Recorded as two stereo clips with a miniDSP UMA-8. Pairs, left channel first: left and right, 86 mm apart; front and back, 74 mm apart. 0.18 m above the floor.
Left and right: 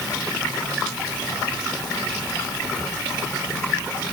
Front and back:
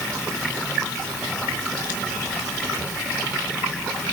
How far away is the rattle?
No rattle in this recording.